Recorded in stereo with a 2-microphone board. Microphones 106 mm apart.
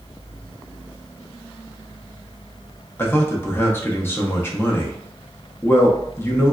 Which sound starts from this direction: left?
A man speaking, at 3.0 s.